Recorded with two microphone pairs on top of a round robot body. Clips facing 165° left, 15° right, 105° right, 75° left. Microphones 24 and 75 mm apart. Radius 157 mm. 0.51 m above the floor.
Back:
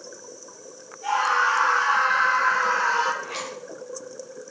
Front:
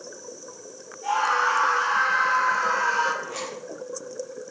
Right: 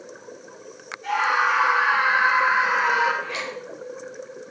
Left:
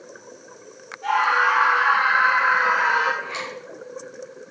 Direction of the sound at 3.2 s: 145° left.